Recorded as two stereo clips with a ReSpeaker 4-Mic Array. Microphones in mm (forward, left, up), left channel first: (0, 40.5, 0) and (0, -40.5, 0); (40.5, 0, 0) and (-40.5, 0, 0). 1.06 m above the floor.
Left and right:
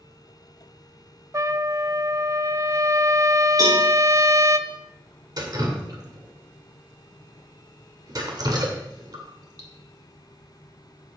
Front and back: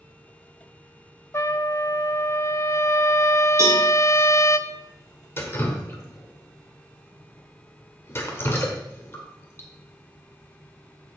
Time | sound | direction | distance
1.3 | a trumpet | 45° right | 0.5 m
3.6 | a cowbell | 130° right | 5 m
5.4 | dripping | 55° right | 2.0 m